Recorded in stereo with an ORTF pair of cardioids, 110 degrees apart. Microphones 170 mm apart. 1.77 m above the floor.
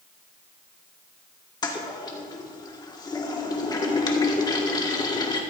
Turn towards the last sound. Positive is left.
turn(degrees=25)